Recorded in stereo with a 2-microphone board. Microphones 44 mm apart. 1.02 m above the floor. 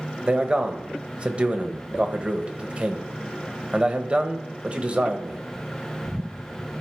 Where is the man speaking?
25° right (ahead or behind), 1.0 m.